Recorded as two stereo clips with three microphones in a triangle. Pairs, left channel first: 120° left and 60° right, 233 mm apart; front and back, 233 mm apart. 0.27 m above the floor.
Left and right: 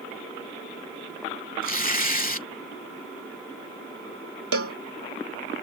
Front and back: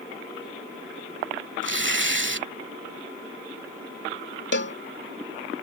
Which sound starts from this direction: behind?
Tearing paper, at 1.6 s.